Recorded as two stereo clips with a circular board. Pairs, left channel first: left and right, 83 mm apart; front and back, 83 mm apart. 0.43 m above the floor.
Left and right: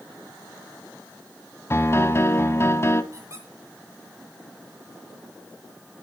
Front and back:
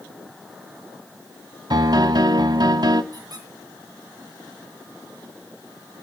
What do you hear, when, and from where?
1.7 s a piano: 150° left, 0.7 m
3.1 s a squeak: 140° right, 3 m